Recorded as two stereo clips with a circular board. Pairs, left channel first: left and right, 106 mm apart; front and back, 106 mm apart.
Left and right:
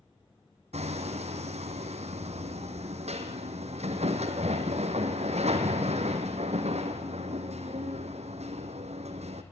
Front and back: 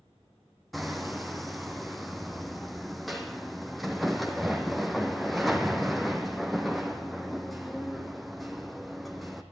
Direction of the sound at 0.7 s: 90° right.